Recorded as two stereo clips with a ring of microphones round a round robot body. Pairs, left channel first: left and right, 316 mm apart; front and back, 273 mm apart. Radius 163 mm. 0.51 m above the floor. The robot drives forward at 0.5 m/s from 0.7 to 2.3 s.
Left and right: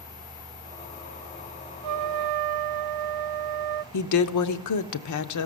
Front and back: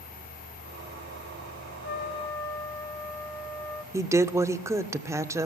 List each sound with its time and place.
1.8 s a trumpet: 55° right, 0.6 m; by 3.8 s 80° right, 0.5 m
3.9 s a woman speaking: 100° left, 1.1 m